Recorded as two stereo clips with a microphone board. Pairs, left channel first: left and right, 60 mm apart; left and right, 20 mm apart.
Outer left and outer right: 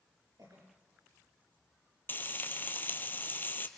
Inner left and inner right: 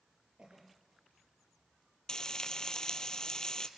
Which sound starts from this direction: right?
A cough, at 0.4 s.